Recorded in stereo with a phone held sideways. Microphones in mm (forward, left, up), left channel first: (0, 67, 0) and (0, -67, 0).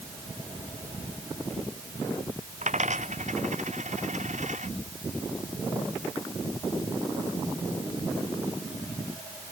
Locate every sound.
2.6 s a dropped coin: 65° right (ahead or behind)